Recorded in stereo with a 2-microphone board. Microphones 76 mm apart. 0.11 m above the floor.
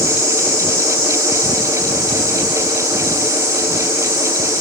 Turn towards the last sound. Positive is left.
turn(degrees=-45)  # may be behind; listen again after turning